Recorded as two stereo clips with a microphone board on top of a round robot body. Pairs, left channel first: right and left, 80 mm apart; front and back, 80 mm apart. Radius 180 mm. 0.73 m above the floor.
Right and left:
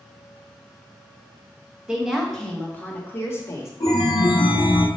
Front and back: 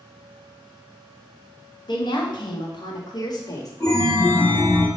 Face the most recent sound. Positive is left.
turn(degrees=-60)